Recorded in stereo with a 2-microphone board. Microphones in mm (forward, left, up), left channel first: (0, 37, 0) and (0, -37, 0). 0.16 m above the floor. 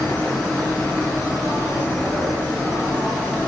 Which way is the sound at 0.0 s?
35° left (ahead or behind).